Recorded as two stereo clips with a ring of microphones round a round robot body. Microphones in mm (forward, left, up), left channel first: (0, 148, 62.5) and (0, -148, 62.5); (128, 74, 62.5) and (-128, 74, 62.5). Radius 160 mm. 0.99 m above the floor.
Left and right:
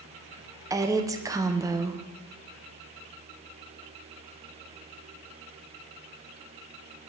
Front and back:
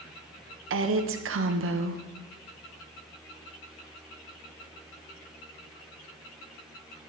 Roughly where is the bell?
I don't hear a bell.